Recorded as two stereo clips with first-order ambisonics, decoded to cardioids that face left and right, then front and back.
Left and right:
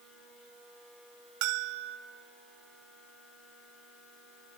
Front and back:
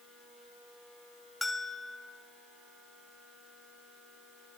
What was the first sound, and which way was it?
A bell, 80° right.